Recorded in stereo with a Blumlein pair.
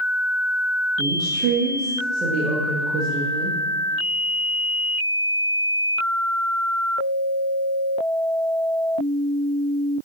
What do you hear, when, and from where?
1.0 s a woman speaking: 35° right, 1.7 m